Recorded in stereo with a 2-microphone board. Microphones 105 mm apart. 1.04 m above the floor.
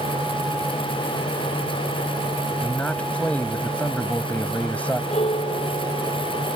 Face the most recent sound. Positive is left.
turn(degrees=85)